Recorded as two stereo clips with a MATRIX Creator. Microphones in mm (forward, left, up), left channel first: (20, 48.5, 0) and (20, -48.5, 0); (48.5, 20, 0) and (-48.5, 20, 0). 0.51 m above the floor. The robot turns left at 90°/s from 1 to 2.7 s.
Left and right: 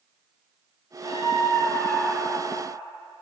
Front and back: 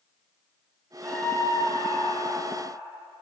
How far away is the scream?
About 8 m.